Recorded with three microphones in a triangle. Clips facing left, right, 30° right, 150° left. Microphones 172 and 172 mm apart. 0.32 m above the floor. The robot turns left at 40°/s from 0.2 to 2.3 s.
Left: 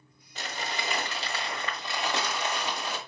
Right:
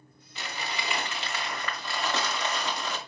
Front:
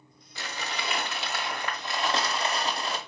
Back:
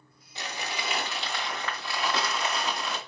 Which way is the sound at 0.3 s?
90° left.